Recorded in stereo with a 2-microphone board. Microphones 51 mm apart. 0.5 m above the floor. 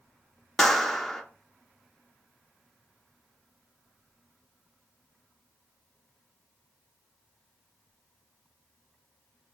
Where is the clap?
5° left (ahead or behind), 0.5 m.